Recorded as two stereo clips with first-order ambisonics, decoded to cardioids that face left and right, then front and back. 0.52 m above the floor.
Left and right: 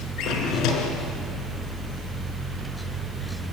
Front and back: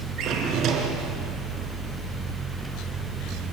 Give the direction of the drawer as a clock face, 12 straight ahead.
8 o'clock.